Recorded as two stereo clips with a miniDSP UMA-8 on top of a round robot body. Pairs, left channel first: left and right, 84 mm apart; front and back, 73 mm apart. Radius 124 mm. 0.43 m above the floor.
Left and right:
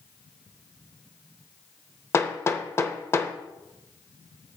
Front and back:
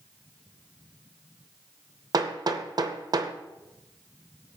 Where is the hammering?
150° left, 0.8 m.